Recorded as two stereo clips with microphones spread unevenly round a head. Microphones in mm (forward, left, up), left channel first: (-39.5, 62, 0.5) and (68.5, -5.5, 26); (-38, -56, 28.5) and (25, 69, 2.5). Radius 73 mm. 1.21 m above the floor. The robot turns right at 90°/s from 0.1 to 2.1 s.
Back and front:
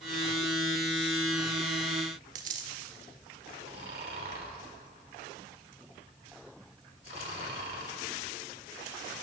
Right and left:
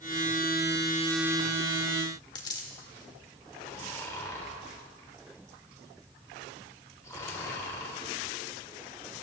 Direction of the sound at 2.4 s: 60° right.